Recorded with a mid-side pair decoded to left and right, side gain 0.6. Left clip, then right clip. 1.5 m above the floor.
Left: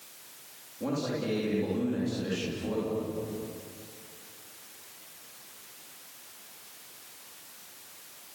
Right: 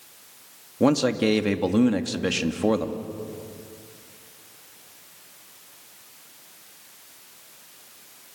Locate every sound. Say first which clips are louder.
0.8 s a man speaking: right 11 dB; 65° right, 2.5 m